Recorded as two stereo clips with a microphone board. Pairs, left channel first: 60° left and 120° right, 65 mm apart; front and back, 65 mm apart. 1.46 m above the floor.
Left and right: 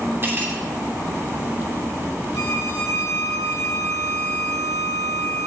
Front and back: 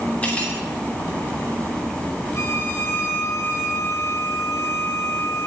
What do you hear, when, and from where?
0.2 s cutlery clinking: 70° right, 2.5 m
2.4 s a violin: 35° left, 2 m